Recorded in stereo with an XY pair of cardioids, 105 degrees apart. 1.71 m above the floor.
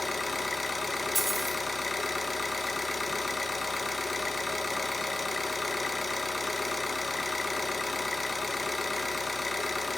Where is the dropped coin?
10° right, 4.5 m.